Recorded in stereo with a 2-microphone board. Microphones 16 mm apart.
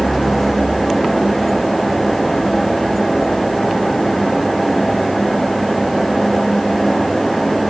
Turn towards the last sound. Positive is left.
No sound to turn to.